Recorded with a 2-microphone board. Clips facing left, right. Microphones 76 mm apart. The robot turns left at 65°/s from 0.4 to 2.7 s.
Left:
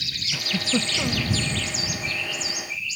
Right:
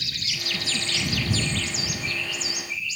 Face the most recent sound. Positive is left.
turn(degrees=-40)